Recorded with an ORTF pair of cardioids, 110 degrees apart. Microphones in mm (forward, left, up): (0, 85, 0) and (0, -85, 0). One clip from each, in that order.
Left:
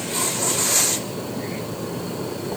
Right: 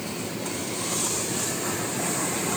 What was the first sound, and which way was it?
Only background noise.